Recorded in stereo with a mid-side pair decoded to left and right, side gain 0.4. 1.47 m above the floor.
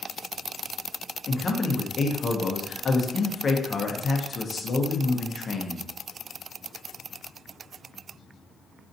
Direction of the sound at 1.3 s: 35° left.